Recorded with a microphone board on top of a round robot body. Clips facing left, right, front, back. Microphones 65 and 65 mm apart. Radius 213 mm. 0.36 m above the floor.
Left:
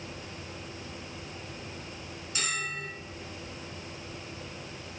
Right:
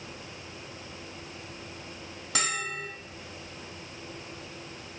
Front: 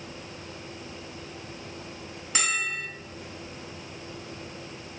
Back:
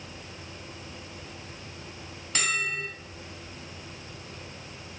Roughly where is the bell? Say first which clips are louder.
Right 3 dB, even; right.